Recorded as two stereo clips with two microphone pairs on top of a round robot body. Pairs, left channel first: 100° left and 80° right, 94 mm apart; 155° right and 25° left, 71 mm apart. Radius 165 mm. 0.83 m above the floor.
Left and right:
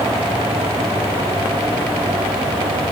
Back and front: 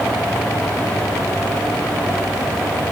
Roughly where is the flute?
I don't hear a flute.